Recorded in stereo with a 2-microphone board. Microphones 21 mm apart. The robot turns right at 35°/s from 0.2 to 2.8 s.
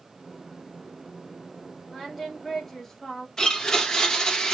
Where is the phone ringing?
No phone ringing in this recording.